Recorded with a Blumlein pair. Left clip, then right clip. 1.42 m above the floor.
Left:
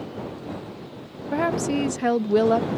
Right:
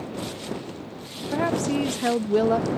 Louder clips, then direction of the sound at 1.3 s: Left 1 dB; 10° left.